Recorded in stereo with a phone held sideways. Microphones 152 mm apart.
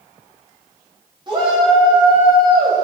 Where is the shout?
30° right (ahead or behind), 3.5 m.